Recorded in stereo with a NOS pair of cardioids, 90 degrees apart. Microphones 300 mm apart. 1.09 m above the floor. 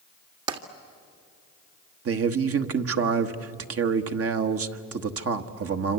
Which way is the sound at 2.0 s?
50° right.